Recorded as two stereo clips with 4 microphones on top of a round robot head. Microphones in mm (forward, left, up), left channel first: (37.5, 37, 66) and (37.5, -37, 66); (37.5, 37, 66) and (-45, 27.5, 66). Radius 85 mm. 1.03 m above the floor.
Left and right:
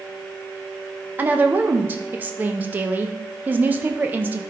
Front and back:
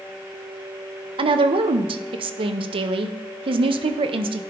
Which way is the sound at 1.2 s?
160° right.